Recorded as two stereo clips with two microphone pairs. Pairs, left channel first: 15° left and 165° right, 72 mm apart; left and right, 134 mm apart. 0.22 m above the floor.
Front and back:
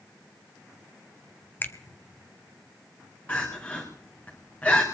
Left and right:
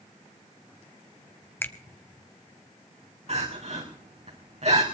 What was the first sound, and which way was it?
A finger snap, 30° left.